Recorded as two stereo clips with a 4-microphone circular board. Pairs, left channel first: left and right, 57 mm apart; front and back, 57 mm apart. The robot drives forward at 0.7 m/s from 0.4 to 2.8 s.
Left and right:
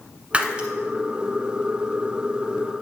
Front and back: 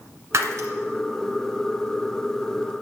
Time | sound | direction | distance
0.3 | breaking glass | 155° right | 1.3 m